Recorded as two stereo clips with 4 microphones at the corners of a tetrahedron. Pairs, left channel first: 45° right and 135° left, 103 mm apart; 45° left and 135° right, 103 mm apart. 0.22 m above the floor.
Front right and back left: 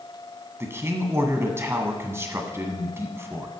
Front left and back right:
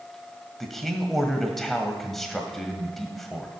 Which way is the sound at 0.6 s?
130° left.